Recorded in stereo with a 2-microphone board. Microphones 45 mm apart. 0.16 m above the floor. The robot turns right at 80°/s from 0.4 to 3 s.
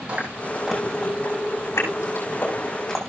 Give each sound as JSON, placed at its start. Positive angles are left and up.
{"t": 0.1, "sound": "chewing", "side_deg": -25, "distance_m": 6.0}